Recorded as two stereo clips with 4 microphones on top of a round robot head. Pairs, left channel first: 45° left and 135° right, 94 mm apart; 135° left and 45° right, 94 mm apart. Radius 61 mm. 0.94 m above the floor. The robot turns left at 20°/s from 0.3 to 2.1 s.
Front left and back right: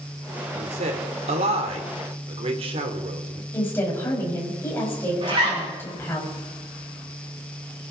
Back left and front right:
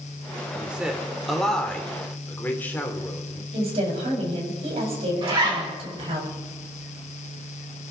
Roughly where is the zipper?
Right.